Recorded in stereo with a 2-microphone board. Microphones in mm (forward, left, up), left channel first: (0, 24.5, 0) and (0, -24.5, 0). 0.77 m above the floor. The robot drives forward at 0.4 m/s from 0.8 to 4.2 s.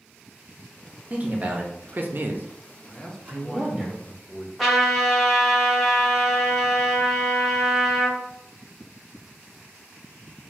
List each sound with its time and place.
1.1 s a man speaking: 30° right (ahead or behind), 0.6 m; by 3.9 s 20° right (ahead or behind), 0.8 m
2.9 s a man speaking: 15° left (ahead or behind), 0.5 m; by 4.5 s 10° left (ahead or behind), 0.6 m
4.6 s a trumpet: centre (ahead or behind), 0.6 m